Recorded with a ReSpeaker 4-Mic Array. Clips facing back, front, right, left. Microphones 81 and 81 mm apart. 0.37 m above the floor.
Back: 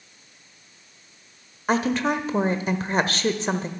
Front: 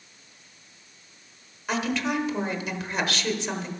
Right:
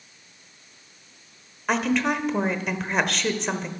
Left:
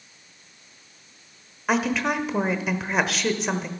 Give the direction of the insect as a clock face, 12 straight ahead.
I don't hear an insect.